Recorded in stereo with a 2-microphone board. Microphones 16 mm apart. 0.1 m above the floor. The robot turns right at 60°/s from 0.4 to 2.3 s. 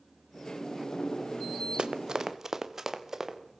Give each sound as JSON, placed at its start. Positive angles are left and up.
{"t": 1.8, "sound": "running footsteps", "side_deg": -65, "distance_m": 1.2}